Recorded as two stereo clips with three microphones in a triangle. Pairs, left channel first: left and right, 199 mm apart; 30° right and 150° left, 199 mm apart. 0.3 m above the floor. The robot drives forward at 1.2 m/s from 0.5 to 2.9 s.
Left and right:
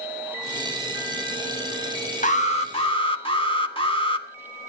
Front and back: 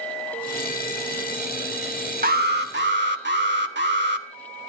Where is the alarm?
130° left, 1.3 m; by 4.3 s 150° left, 1.9 m.